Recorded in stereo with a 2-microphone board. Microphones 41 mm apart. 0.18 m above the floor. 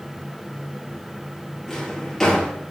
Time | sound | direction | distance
1.7 | a drawer | 10° left (ahead or behind) | 1.4 m